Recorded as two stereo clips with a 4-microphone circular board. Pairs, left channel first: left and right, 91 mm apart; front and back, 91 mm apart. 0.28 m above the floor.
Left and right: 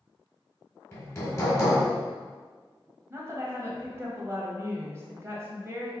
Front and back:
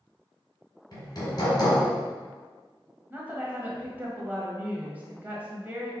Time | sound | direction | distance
0.9 | hammering | 35° left | 1.8 m
3.1 | a woman speaking | 125° right | 1.2 m